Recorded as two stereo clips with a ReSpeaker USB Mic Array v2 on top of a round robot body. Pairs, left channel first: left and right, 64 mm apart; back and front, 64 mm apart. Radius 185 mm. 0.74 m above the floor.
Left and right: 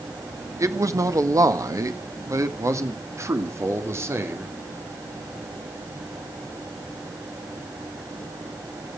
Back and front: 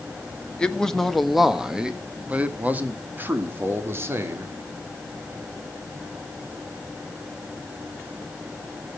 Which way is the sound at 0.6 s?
105° right.